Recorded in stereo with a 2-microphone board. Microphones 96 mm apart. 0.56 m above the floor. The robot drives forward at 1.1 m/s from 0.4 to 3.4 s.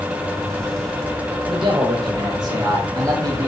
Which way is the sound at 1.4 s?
60° right (ahead or behind).